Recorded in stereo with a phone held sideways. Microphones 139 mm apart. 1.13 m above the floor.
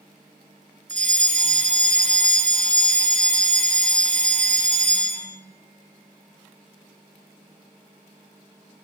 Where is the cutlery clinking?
I don't hear cutlery clinking.